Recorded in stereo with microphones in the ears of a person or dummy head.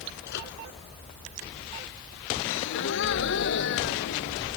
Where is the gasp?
65° left (ahead or behind).